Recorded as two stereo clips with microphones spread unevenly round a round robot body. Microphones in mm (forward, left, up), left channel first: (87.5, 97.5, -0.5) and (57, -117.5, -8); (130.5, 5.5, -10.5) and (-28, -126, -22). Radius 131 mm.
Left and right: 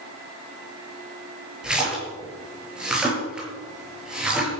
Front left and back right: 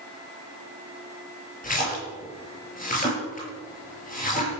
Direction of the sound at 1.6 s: 10° right.